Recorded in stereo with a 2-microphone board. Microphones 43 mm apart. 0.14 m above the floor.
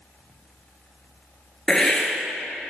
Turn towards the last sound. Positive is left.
turn(degrees=20)  # may be behind; listen again after turning